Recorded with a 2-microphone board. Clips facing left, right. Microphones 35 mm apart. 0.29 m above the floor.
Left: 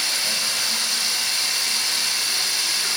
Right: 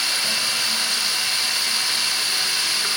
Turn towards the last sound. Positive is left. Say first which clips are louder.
# right 2 dB
turn(degrees=-30)  # may be behind; listen again after turning